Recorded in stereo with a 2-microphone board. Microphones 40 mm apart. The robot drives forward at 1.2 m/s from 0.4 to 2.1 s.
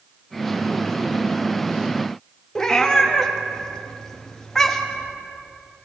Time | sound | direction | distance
2.5 | a cat meowing | 15° left (ahead or behind) | 0.8 m